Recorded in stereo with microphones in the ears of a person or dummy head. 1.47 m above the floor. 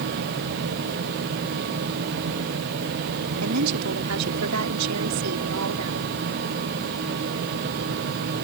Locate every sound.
3.4 s a woman speaking: 80° right